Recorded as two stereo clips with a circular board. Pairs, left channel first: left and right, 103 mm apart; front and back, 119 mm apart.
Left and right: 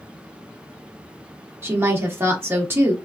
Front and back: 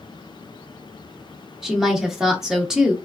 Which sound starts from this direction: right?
A woman speaking, at 1.6 s.